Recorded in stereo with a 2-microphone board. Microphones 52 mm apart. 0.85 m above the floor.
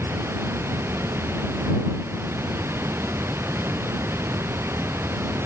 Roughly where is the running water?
Right.